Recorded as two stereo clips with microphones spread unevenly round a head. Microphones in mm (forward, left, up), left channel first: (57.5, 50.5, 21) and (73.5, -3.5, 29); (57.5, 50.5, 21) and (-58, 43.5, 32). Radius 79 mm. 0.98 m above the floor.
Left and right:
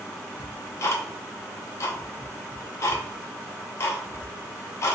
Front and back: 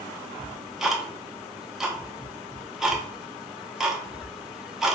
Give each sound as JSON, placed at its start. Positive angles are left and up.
{"t": 0.4, "sound": "ticking", "azimuth_deg": 105, "distance_m": 0.6}